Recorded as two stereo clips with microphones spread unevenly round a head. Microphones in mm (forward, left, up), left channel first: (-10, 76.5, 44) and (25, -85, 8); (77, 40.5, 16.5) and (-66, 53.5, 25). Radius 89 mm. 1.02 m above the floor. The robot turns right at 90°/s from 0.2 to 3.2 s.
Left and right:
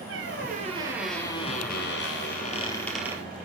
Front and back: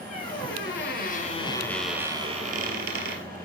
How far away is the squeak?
About 2.5 m.